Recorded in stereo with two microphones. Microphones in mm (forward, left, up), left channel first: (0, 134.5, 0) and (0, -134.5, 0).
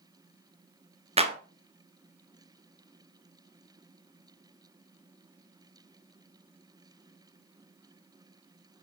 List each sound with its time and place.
1.2 s a clap: 25° right (ahead or behind), 1.0 m